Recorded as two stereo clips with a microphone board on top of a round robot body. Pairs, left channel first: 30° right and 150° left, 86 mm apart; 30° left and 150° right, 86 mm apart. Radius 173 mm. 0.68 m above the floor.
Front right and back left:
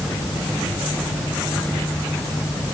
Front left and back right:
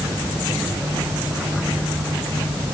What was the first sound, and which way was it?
Only background noise.